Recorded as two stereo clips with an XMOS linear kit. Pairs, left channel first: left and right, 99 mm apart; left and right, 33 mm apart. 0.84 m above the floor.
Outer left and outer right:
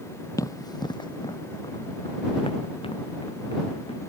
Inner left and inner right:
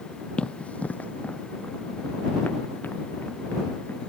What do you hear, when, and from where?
0.4 s running footsteps: 35° left (ahead or behind); by 4.1 s 70° left (ahead or behind)